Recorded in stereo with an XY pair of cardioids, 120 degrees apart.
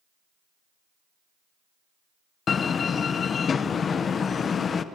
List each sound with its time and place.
2.5 s a door slam: 40° left, 0.7 m